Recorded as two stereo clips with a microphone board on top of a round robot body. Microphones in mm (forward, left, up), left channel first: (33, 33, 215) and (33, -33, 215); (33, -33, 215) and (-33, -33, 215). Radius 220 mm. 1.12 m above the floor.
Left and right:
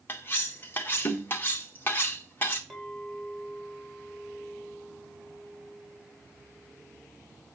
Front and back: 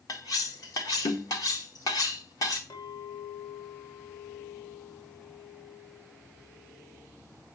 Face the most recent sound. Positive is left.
turn(degrees=0)